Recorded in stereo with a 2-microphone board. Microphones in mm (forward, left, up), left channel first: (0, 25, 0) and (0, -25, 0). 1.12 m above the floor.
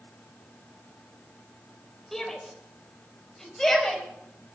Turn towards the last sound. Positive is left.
turn(degrees=10)  # may be behind; listen again after turning